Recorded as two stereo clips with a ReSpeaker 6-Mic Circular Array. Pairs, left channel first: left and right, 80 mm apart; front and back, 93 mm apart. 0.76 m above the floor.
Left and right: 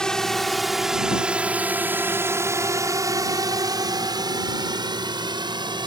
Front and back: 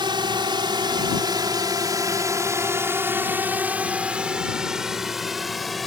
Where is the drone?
170° left; by 5.9 s 90° right.